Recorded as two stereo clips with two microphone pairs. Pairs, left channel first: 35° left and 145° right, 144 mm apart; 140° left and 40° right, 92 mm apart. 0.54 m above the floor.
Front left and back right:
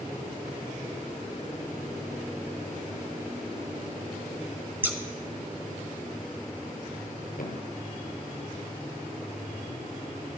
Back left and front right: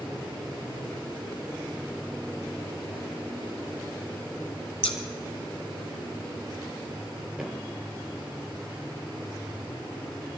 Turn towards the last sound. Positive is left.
turn(degrees=45)